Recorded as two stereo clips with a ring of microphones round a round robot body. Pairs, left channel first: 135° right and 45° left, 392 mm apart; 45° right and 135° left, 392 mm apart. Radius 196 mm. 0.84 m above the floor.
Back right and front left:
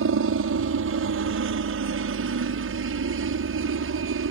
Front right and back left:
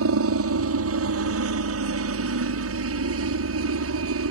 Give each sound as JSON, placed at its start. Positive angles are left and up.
{"t": 0.0, "sound": "a helicopter", "azimuth_deg": 90}